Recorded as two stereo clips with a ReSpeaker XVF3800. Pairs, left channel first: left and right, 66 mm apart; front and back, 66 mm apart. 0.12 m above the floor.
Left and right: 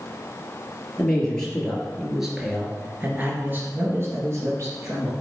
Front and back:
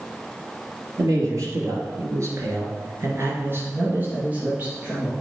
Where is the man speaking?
160° left, 2.5 m; by 5.1 s 105° right, 2.5 m.